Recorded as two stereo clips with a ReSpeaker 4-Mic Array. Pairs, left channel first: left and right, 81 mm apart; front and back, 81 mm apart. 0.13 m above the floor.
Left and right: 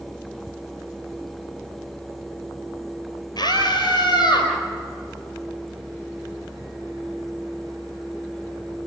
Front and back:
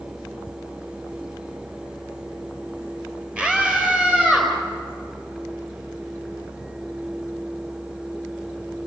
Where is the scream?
105° left, 3.5 m.